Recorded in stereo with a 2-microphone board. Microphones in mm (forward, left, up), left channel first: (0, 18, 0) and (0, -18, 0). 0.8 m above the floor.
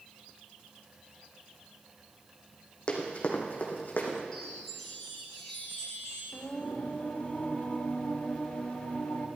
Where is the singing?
40° left (ahead or behind), 1.8 m.